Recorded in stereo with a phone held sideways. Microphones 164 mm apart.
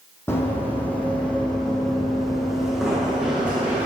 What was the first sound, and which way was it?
Running footsteps, 15° left (ahead or behind).